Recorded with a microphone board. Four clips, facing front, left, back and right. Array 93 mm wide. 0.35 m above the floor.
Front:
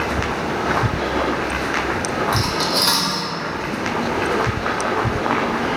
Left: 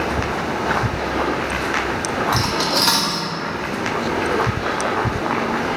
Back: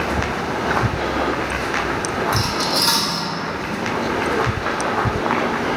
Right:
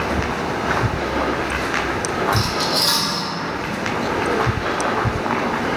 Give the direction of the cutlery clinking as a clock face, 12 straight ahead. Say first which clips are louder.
Left 1 dB, even; 10 o'clock.